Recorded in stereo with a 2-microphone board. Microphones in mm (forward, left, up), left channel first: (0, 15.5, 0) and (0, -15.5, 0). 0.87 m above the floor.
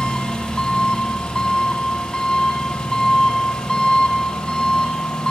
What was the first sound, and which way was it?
An engine running, 25° left (ahead or behind).